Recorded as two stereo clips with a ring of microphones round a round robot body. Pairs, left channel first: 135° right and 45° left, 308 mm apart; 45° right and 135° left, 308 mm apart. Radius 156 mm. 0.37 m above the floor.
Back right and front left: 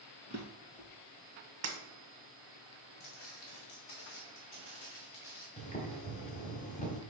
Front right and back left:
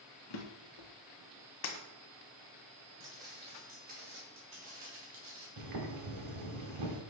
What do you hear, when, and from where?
0.3 s a drawer: 60° right, 1.8 m
1.6 s breaking glass: straight ahead, 1.4 m
3.0 s footsteps: 140° right, 2.5 m; by 5.5 s 160° left, 2 m
5.6 s boiling: 160° left, 1.4 m